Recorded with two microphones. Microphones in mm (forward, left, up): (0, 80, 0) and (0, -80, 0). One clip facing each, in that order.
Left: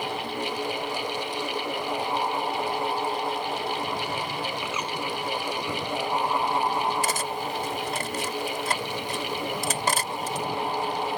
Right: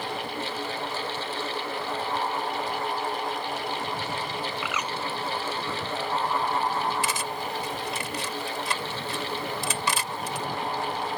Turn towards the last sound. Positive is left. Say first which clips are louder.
# left 2 dB
turn(degrees=45)  # may be behind; listen again after turning